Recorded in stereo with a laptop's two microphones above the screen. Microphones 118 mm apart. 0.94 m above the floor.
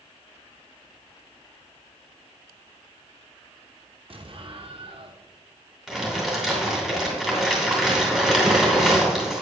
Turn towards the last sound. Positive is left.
turn(degrees=0)  # may be behind; listen again after turning